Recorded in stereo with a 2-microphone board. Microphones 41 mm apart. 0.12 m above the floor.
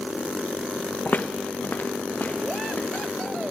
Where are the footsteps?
45° left (ahead or behind), 0.5 m.